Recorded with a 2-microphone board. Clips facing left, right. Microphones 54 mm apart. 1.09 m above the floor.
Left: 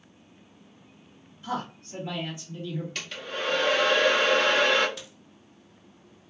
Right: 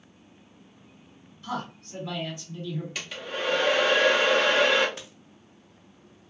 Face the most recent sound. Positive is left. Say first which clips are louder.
# even
turn(degrees=-35)  # may be behind; listen again after turning